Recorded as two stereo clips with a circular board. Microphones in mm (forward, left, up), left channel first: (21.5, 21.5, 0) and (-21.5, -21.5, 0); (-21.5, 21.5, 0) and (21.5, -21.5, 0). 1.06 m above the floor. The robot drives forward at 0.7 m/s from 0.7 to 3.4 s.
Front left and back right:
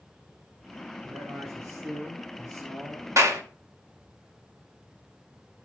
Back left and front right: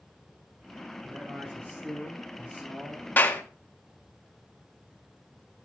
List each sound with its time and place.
1.0 s a man speaking: 105° right, 8.5 m; by 3.1 s 115° right, 9 m
3.2 s a clap: 165° right, 1.6 m; by 3.4 s 170° right, 1.8 m